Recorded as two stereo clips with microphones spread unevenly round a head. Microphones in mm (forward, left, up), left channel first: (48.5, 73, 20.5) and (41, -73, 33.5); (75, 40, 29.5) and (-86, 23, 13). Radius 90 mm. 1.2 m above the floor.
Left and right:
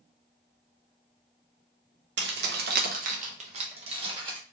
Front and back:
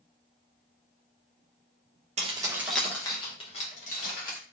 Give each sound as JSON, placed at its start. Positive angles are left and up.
{"t": 2.2, "sound": "keys jangling", "azimuth_deg": -120, "distance_m": 0.5}